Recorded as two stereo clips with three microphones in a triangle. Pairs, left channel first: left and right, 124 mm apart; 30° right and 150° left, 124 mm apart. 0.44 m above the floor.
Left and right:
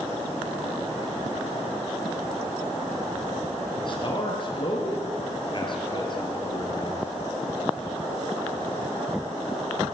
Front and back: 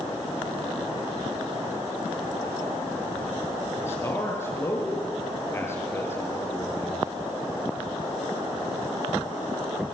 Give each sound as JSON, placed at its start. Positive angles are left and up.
{"t": 3.8, "sound": "a man speaking", "azimuth_deg": 40, "distance_m": 7.5}